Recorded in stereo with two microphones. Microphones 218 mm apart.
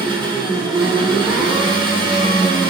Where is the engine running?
20° right (ahead or behind), 1.0 m.